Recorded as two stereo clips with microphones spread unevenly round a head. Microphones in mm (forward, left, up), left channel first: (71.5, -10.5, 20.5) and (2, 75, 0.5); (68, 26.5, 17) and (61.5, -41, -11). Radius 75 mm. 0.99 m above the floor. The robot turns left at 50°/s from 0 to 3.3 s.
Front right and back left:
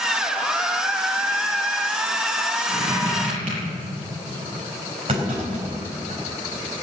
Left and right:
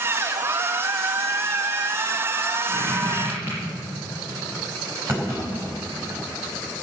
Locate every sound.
2.7 s a squeak: 145° right, 6.5 m; by 3.6 s 175° right, 6.5 m
5.1 s a clunk: 175° right, 3.5 m